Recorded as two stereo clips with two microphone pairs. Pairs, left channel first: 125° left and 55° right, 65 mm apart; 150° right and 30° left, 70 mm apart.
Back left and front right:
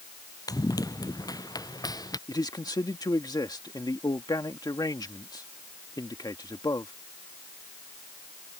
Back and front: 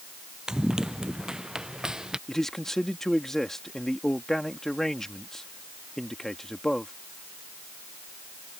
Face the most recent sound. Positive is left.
turn(degrees=125)